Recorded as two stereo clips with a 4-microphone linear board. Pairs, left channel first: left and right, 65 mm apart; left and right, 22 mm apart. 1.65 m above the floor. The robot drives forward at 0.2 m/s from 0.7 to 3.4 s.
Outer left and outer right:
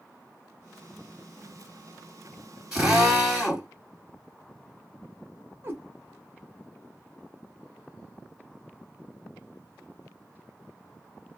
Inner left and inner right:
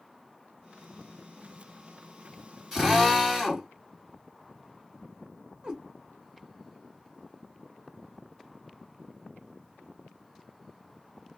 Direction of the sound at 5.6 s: 35° right (ahead or behind).